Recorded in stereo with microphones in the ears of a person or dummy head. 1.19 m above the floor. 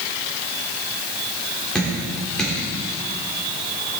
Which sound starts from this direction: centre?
Dripping, at 1.8 s.